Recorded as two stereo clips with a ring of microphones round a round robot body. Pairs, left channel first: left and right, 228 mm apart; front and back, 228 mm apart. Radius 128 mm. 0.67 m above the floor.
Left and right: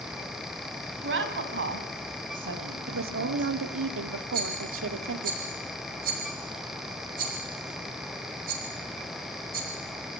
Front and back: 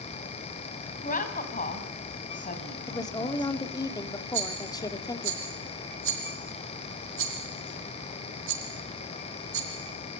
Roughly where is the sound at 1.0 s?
Ahead right.